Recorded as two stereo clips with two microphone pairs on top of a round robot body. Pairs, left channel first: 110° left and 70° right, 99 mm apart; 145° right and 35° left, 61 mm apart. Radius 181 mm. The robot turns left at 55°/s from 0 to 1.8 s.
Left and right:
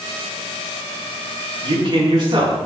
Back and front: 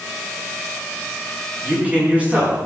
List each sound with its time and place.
1.6 s a man speaking: 25° right, 6 m; by 2.6 s 35° right, 6 m